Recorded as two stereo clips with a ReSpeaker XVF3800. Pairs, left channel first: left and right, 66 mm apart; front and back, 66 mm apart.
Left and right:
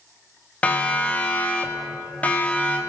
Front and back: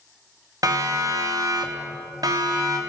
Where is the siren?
160° left, 2.5 m.